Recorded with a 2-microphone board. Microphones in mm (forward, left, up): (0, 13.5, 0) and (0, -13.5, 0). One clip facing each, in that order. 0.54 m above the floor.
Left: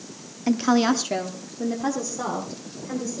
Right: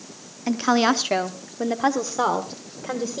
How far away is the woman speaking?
About 0.6 m.